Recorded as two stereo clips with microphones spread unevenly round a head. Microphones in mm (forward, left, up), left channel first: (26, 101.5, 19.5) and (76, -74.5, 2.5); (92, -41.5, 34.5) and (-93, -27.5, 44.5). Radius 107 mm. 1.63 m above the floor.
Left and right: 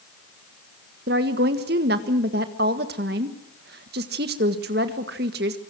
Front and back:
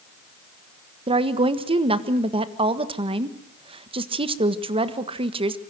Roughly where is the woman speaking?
Behind right.